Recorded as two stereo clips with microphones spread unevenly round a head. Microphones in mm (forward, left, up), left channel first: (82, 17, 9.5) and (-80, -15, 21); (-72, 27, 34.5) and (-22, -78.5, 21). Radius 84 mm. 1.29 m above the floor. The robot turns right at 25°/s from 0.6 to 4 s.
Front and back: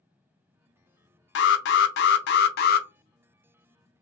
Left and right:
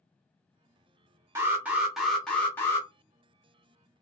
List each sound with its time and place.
1.4 s an alarm: 5° left, 0.6 m; by 2.9 s 45° left, 0.6 m